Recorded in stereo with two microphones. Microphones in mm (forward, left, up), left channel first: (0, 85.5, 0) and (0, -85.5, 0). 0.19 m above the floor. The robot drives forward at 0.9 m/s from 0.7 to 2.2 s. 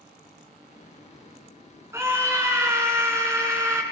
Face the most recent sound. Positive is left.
turn(degrees=-15)  # may be behind; listen again after turning